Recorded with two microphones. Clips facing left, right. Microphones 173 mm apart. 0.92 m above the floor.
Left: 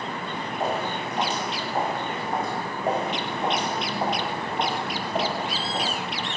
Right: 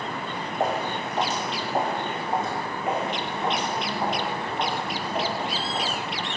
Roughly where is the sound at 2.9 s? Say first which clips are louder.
Left 2 dB; left.